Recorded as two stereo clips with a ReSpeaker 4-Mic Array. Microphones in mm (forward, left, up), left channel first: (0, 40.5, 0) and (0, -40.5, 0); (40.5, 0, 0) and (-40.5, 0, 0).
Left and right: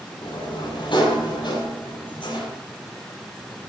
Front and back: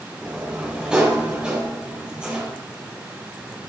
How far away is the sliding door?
About 6 m.